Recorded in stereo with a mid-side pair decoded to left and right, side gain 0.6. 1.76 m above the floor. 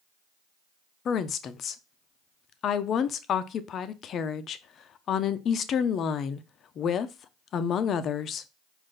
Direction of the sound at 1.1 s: 45° left.